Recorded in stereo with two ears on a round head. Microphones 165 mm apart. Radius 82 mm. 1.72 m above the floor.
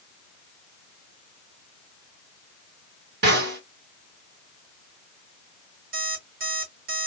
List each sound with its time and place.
3.2 s a snare drum: 65° right (ahead or behind), 3 m
5.9 s an alarm clock: 55° right (ahead or behind), 3.5 m